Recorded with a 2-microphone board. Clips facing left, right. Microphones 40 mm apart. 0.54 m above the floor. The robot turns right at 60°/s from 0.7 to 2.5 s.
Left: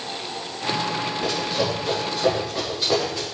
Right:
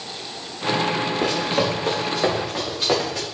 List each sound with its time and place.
1.2 s running footsteps: 75° right (ahead or behind), 3.5 m; by 3.2 s 60° right (ahead or behind), 4.5 m